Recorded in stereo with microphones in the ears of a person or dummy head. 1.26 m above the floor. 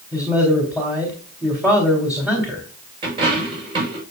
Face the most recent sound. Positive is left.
turn(degrees=-30)  # may be behind; listen again after turning